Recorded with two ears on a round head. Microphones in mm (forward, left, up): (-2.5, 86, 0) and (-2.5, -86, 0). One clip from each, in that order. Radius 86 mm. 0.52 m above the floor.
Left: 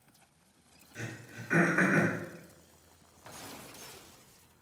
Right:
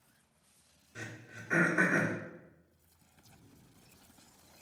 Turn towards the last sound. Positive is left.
turn(degrees=0)  # may be behind; listen again after turning